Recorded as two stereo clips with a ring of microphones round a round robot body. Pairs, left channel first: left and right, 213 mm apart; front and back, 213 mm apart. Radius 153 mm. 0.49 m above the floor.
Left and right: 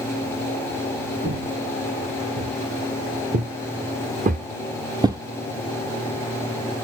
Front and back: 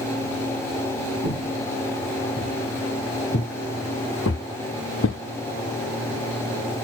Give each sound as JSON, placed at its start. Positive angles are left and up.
{"t": 1.2, "sound": "footsteps", "azimuth_deg": -50, "distance_m": 3.0}